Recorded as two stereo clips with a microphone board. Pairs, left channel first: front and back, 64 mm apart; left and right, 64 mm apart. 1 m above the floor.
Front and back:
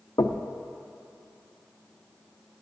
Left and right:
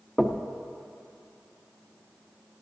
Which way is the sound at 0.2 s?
10° left.